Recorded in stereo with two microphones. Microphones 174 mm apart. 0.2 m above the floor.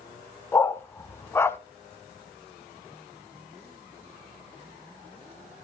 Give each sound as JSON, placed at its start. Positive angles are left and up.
{"t": 0.5, "sound": "a dog barking", "side_deg": 15, "distance_m": 0.6}